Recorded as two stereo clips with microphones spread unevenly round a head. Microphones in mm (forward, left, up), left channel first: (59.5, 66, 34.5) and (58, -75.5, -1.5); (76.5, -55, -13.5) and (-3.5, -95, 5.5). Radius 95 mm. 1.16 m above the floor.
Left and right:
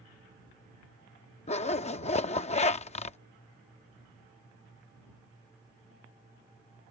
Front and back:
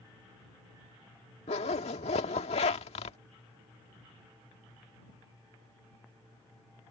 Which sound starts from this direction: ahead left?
A zipper, at 1.5 s.